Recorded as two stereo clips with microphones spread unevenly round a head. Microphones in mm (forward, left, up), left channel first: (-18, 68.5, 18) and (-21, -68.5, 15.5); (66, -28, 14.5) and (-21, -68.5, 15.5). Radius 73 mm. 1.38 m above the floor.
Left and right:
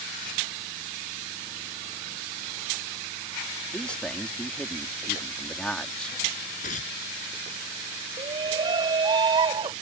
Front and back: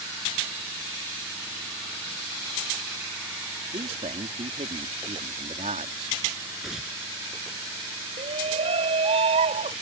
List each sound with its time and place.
3.7 s a man speaking: 170° left
6.6 s tearing paper: 120° left
8.2 s a shout: 150° right